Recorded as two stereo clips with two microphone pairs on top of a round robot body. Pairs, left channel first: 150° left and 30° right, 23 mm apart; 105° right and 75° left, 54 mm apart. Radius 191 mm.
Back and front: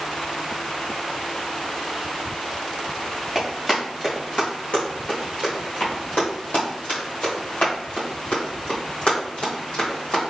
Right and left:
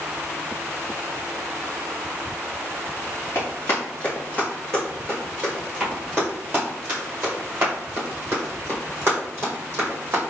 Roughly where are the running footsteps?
Behind right.